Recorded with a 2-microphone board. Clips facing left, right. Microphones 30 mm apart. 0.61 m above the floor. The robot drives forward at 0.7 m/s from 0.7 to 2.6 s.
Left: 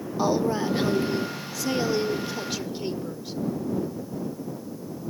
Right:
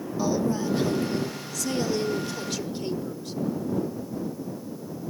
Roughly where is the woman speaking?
Left.